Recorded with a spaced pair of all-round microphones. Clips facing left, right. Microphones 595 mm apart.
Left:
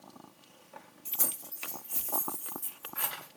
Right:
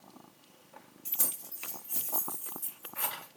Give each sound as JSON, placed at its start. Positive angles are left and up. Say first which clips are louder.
{"t": 1.1, "sound": "keys jangling", "louder": "left 3 dB", "side_deg": -25, "distance_m": 0.6}